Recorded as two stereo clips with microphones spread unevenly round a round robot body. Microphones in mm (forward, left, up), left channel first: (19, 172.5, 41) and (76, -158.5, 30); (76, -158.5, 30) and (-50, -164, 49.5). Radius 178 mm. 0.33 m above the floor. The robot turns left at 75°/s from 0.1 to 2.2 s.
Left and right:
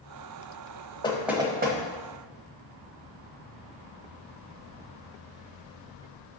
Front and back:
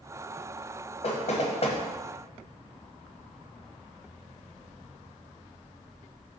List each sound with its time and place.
1.0 s knocking: 25° left, 1.2 m; by 1.8 s 30° right, 1.2 m